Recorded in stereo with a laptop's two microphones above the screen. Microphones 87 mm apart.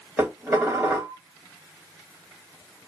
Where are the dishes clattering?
25° right (ahead or behind), 1.2 m.